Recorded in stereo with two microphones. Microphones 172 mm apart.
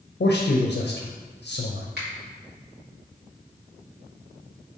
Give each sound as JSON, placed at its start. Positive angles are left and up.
{"t": 0.2, "sound": "a man speaking", "side_deg": 80, "distance_m": 0.5}
{"t": 2.0, "sound": "a finger snap", "side_deg": -75, "distance_m": 1.3}